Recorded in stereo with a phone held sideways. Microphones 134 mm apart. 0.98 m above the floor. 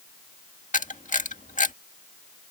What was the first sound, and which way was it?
A camera shutter, 70° left (ahead or behind).